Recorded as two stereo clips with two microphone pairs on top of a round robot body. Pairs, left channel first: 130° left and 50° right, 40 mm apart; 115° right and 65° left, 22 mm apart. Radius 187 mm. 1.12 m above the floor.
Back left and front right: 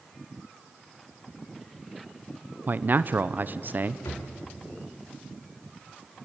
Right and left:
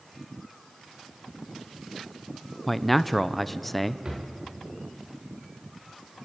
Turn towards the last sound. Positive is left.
turn(degrees=130)